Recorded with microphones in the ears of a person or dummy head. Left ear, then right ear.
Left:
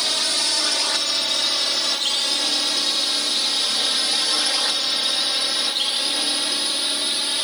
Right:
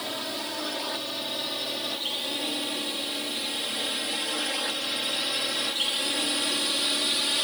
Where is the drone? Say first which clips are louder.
Left 11 dB; 65° left (ahead or behind); by 7.5 s 15° left (ahead or behind).